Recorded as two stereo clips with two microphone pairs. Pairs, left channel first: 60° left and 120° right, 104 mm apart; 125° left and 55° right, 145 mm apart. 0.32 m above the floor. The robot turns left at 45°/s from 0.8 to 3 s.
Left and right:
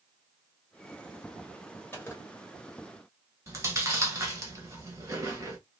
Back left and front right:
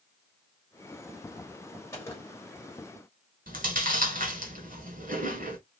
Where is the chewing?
60° right, 1.2 m.